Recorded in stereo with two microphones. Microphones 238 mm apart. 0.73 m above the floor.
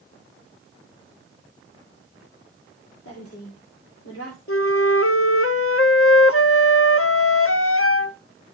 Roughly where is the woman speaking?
Left.